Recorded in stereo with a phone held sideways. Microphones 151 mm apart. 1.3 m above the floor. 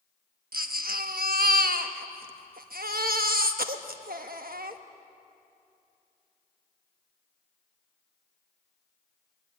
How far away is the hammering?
I don't hear hammering.